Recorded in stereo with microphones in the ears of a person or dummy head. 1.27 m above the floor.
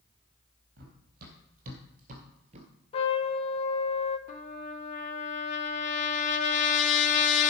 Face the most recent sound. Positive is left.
turn(degrees=45)  # may be behind; listen again after turning